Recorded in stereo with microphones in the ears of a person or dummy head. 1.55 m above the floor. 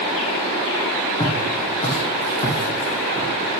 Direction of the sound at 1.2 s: 15° left (ahead or behind).